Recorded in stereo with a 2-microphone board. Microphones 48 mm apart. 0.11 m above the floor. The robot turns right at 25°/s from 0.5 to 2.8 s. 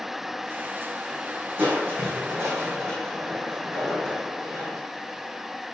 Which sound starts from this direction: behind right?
Crushing, at 1.6 s.